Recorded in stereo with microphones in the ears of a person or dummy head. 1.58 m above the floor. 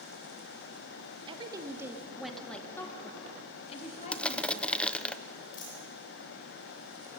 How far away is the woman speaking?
About 2 m.